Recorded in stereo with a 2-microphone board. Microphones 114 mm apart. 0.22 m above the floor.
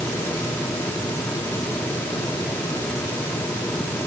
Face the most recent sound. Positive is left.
No sound to turn to.